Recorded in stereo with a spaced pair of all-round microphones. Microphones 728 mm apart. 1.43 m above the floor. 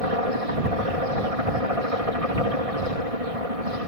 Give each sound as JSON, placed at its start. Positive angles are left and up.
{"t": 0.0, "sound": "a helicopter", "side_deg": -50}